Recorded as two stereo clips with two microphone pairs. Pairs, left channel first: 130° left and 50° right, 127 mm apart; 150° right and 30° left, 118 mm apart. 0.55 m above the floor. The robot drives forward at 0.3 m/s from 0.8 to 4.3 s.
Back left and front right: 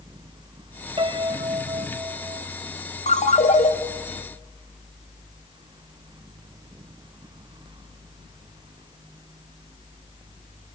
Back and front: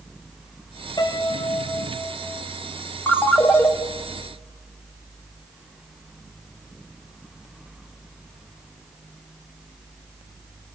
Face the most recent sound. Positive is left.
turn(degrees=145)